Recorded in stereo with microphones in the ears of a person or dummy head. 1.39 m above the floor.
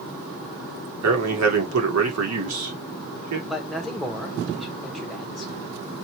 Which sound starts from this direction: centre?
A man speaking, at 3.5 s.